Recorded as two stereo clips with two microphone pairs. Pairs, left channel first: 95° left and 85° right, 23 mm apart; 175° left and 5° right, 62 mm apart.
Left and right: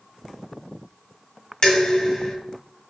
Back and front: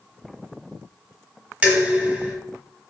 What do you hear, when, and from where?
1.6 s dishes clattering: 60° left, 1.3 m